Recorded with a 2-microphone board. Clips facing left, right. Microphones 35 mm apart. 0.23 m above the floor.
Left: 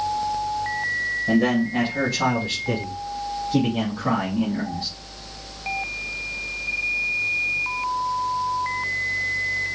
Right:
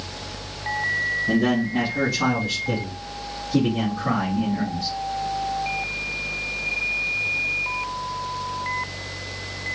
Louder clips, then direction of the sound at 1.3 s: Left 3 dB; 25° left (ahead or behind).